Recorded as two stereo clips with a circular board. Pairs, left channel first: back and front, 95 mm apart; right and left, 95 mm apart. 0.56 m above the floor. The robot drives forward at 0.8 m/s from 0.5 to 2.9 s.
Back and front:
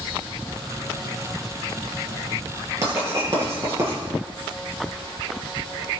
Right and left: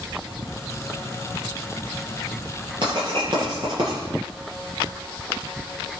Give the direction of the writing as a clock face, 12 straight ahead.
10 o'clock.